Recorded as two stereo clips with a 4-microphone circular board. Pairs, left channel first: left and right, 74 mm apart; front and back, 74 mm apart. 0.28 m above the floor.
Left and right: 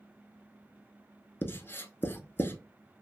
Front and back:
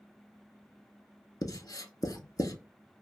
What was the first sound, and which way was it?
Writing, 30° left.